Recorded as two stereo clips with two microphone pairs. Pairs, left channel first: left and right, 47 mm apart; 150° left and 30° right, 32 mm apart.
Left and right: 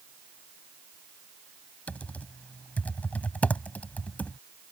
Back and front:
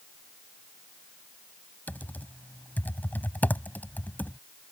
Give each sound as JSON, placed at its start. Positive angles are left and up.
{"t": 1.9, "sound": "typing on a keyboard", "azimuth_deg": 150}